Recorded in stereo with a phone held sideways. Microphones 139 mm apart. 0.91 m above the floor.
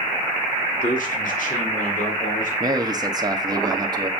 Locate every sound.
0.8 s a man speaking: 70° left (ahead or behind), 2.5 m
2.6 s a man speaking: 30° right (ahead or behind), 1.5 m